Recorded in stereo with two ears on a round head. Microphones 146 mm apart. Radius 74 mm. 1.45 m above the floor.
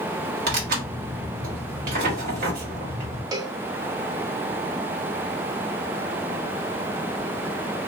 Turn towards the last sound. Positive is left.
turn(degrees=-25)  # may be behind; listen again after turning